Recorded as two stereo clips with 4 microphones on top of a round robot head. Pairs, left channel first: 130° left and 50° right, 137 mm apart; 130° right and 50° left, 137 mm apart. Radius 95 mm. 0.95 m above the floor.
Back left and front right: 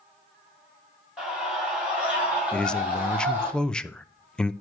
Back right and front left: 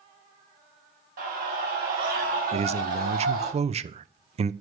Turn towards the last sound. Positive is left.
turn(degrees=50)